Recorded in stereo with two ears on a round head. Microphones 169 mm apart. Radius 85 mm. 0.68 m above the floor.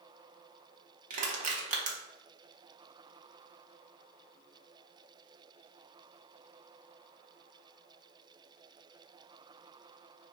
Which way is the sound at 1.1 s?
40° right (ahead or behind).